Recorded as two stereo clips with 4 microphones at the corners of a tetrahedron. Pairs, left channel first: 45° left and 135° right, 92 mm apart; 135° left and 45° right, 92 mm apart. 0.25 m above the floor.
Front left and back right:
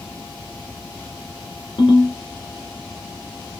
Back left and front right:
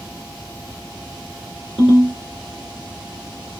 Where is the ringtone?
50° left, 1.7 m.